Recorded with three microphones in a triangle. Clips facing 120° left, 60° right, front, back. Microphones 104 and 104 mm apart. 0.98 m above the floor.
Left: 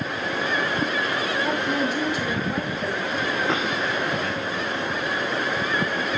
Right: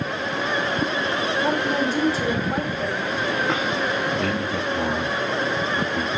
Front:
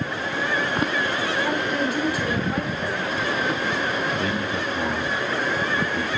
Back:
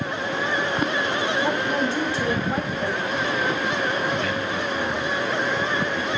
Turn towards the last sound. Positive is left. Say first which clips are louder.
# right 3 dB, even
turn(degrees=-60)